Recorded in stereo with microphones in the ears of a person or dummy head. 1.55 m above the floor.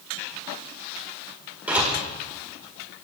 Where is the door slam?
5° right (ahead or behind), 4.5 m.